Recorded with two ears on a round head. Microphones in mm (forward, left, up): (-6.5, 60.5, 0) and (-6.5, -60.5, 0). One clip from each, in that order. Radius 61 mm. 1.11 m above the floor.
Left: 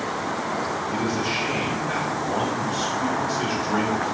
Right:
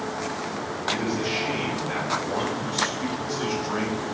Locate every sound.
0.9 s a man speaking: 5° left (ahead or behind), 3.5 m